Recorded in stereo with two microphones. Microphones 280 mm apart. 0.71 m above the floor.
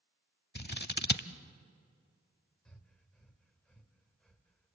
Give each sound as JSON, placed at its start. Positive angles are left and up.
{"t": 0.6, "sound": "scissors", "side_deg": 35, "distance_m": 0.9}
{"t": 2.6, "sound": "breathing", "side_deg": 5, "distance_m": 2.5}